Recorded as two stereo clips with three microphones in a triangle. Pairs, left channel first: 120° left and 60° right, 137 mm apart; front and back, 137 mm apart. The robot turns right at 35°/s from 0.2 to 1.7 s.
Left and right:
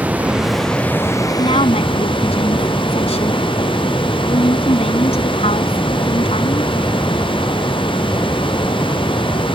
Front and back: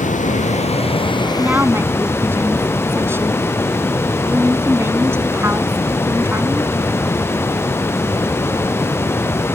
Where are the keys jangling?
I don't hear keys jangling.